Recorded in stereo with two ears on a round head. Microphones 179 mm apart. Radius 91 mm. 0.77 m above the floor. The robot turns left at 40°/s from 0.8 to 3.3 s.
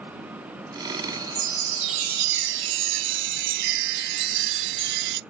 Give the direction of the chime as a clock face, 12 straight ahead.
1 o'clock.